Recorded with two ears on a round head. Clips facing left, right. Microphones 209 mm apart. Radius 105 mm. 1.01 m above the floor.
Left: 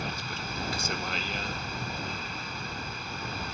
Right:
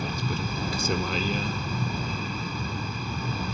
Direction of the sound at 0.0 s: 85° right.